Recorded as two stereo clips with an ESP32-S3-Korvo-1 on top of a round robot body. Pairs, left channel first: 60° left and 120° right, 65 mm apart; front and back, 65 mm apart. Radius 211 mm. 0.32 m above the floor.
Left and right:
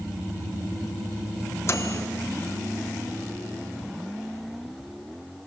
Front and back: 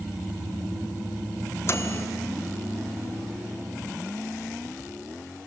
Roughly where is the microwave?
Ahead left.